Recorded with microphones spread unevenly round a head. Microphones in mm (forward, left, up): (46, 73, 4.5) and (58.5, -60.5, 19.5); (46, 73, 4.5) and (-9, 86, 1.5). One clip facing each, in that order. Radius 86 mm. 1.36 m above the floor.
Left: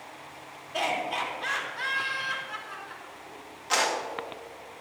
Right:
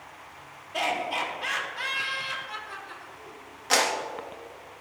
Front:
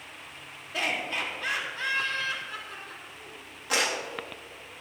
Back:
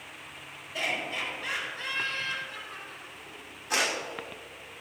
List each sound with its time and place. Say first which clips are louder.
0.7 s laughter: right 1 dB, front 2 dB; 5° left, 3.5 m; by 3.4 s 40° right, 4 m
3.7 s a clap: right 2 dB, front 1 dB; 50° right, 2 m